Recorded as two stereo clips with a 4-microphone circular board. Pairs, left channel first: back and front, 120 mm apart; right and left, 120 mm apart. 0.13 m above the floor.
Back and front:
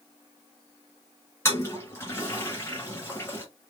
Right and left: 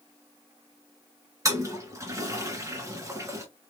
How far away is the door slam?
No door slam in this recording.